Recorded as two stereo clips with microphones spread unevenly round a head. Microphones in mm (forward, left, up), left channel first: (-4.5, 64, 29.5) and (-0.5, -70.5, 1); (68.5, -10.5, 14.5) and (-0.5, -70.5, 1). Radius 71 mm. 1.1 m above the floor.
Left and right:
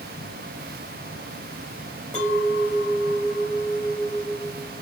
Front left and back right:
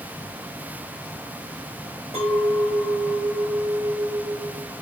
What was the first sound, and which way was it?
A clink, 170° left.